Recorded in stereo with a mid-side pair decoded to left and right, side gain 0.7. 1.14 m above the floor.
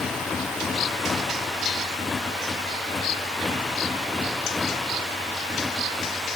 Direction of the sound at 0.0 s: 25° left.